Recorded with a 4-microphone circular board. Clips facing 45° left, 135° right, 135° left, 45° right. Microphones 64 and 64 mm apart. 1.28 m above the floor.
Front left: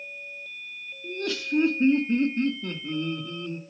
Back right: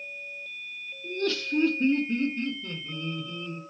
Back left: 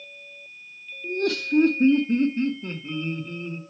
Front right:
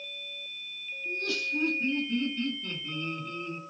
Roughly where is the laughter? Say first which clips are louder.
Back right 1 dB, back left 8 dB; behind left.